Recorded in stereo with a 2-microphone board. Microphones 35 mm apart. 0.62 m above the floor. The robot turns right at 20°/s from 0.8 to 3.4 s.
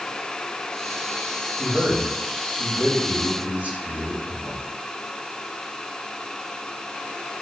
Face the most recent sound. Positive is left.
turn(degrees=-70)